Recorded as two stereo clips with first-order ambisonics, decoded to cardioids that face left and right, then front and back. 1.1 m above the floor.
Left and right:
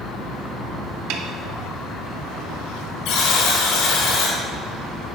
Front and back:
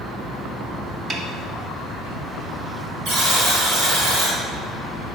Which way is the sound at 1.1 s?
105° right.